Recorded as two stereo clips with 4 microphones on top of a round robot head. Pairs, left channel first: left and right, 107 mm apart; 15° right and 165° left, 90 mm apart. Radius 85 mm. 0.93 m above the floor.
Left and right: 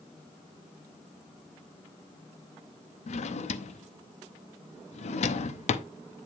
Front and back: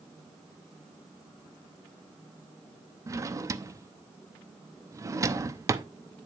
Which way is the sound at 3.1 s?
110° left.